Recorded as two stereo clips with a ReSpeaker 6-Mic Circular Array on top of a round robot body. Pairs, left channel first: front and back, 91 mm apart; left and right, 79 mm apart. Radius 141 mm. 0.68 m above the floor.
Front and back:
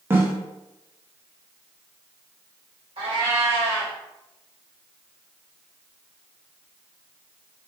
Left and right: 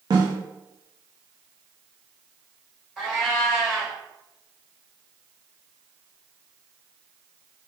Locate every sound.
0.1 s a snare drum: 115° right, 0.8 m
3.0 s a cat meowing: 175° right, 1.6 m